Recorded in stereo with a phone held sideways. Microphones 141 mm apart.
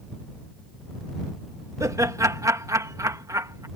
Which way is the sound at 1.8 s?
20° right (ahead or behind).